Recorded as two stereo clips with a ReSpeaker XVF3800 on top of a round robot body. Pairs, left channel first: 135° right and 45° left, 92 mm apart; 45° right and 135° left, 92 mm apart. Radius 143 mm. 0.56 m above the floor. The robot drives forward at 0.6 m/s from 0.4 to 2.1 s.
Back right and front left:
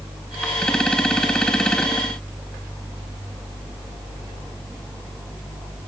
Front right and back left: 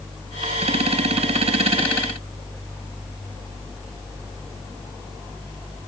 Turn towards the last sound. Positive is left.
No sound to turn to.